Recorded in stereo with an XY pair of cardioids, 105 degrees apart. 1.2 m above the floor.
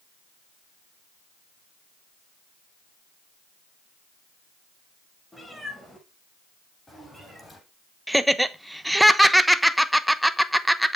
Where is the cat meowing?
10° left, 6 m; by 7.6 s 15° left, 7 m.